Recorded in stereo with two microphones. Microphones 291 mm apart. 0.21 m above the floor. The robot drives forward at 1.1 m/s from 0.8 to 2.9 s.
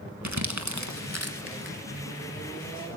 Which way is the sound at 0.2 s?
70° right (ahead or behind).